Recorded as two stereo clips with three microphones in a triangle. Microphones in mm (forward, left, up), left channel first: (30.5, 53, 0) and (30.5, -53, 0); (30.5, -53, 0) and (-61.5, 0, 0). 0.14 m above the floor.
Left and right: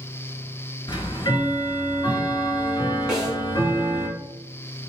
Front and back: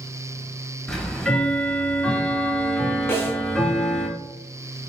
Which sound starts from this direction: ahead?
A snare drum, at 3.1 s.